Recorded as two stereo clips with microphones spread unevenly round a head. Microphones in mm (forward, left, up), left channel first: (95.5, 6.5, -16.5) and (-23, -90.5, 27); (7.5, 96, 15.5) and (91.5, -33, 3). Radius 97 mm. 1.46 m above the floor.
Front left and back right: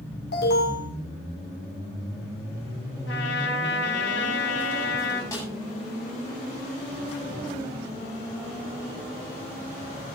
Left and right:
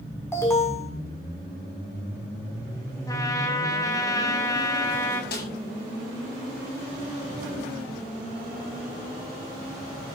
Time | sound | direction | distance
0.3 | an alarm | 50° left | 6.5 m
3.1 | a trumpet | 60° left | 4 m
5.3 | a snare drum | 115° left | 8.5 m